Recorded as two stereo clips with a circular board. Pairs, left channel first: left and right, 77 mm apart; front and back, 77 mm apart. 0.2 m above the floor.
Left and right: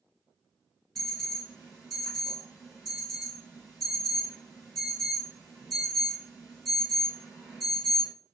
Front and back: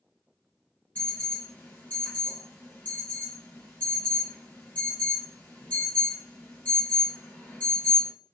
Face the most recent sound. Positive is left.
turn(degrees=-10)